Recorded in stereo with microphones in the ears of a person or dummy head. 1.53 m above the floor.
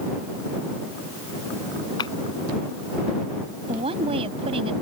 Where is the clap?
25° left (ahead or behind).